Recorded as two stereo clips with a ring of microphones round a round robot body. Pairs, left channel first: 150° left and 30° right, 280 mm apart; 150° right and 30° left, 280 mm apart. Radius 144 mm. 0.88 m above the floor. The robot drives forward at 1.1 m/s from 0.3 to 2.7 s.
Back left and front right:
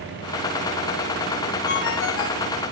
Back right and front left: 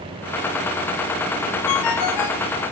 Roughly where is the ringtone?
Behind right.